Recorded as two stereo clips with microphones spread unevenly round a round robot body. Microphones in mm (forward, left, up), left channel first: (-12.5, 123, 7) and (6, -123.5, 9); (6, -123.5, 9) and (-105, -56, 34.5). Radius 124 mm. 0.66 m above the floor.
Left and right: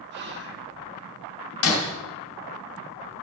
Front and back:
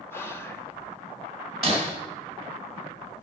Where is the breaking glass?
60° left, 2 m.